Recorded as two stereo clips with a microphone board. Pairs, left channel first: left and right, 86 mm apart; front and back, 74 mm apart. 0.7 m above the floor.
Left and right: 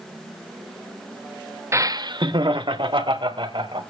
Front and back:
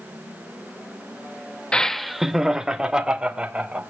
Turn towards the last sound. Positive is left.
turn(degrees=-105)